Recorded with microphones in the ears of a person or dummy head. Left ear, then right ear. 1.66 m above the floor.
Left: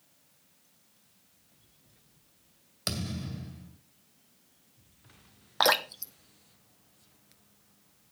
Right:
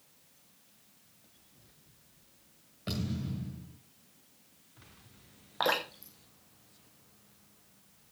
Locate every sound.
2.9 s a thud: 55° left (ahead or behind), 2 m
5.6 s dripping: 35° left (ahead or behind), 1.0 m